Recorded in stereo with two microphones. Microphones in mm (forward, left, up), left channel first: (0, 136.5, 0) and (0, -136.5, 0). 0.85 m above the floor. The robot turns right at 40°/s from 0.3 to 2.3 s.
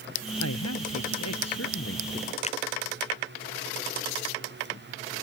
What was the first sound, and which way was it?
A man speaking, 70° left.